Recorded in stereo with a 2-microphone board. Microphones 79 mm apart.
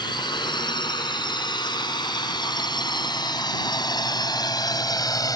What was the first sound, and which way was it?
A drone, 85° left.